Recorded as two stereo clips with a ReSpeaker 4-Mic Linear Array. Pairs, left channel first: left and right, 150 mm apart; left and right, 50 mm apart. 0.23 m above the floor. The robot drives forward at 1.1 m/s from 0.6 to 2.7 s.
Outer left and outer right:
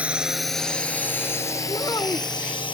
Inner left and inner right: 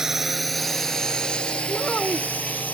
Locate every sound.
0.0 s a drone: 10° right (ahead or behind); by 2.7 s 35° left (ahead or behind)
1.7 s a child speaking: 25° left (ahead or behind)